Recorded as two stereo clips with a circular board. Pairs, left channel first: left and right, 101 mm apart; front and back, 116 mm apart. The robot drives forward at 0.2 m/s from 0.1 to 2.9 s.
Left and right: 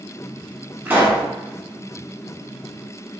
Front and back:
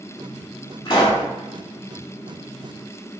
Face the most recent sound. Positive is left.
turn(degrees=-75)